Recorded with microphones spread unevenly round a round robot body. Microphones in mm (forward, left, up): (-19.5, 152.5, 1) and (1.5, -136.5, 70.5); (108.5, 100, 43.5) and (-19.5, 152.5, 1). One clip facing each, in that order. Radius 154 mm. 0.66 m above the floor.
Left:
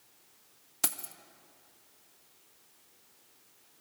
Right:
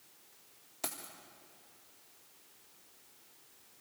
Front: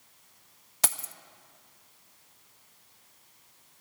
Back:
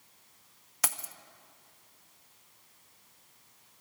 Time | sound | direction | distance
0.8 | keys jangling | 45° left | 0.7 m